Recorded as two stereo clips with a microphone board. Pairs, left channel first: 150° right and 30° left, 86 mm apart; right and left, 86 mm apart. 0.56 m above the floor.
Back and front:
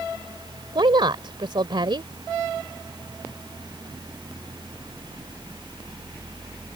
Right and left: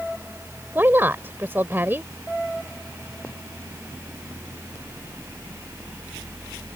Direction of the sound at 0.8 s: 25° left.